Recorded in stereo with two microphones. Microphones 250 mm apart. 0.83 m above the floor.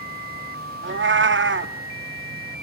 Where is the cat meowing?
50° right (ahead or behind), 0.5 m.